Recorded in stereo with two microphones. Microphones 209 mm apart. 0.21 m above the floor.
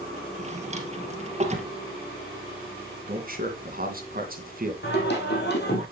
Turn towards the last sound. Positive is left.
turn(degrees=55)  # may be behind; listen again after turning